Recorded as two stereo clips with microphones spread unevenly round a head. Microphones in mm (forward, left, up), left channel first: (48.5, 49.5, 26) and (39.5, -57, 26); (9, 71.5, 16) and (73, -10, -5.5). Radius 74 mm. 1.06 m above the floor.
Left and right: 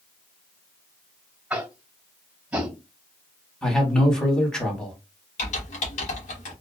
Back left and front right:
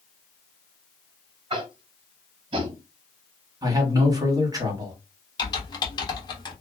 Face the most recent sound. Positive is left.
turn(degrees=80)